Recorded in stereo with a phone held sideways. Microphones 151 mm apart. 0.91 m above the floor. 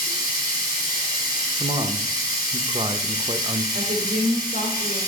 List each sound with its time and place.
0.0 s running water: 75° left (ahead or behind), 2.5 m
1.6 s a man speaking: 35° right (ahead or behind), 0.6 m
3.7 s a woman speaking: 70° right (ahead or behind), 3 m